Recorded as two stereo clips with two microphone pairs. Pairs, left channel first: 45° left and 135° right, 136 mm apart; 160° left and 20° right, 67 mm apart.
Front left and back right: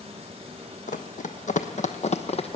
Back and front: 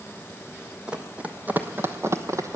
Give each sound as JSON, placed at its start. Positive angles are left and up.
{"t": 0.9, "sound": "running footsteps", "azimuth_deg": 55, "distance_m": 1.2}